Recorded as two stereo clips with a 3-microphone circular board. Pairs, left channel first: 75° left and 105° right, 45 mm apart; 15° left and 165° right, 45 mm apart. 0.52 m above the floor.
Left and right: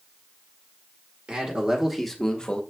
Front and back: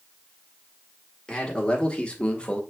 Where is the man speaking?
50° right, 1.3 m; by 2.6 s 50° left, 1.1 m.